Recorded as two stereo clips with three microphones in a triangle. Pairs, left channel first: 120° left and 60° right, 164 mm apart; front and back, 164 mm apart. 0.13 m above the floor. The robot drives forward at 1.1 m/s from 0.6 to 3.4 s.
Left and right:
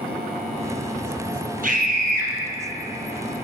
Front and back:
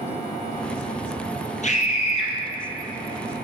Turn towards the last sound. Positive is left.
turn(degrees=-75)